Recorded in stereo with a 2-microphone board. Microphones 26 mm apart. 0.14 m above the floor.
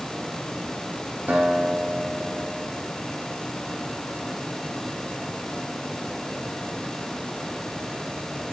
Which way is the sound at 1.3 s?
70° right (ahead or behind).